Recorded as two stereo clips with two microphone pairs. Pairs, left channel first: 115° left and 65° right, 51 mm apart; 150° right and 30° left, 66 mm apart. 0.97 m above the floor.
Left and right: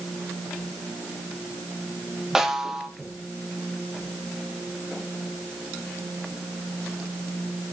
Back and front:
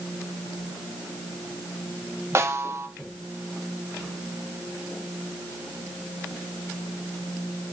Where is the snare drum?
10° left, 1.0 m.